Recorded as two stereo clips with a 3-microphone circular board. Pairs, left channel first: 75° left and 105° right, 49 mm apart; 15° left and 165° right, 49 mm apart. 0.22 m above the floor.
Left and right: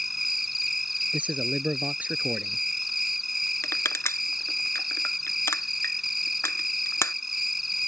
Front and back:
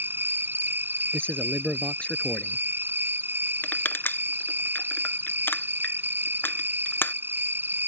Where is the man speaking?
50° right.